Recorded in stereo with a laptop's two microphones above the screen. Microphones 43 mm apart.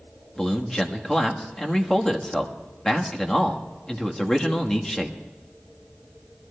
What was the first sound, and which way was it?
A man speaking, 15° left (ahead or behind).